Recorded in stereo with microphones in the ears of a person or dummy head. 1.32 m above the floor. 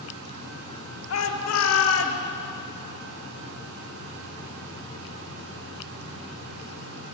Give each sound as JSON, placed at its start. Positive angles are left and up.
{"t": 1.1, "sound": "a shout", "side_deg": 80, "distance_m": 3.5}